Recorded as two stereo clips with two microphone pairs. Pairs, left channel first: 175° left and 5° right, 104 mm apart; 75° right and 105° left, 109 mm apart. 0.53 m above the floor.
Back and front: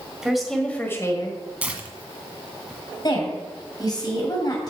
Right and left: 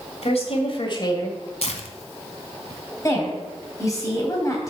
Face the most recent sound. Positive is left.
turn(degrees=-135)